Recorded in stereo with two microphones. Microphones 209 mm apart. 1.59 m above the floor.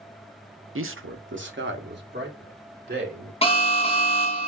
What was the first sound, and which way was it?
A man speaking, 80° right.